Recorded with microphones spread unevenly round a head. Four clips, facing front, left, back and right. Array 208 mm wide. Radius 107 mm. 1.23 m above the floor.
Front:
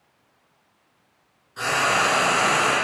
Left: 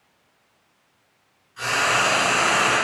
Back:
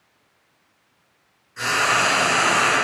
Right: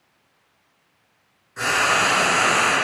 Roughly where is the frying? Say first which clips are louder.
Right 2 dB, back 1 dB; right.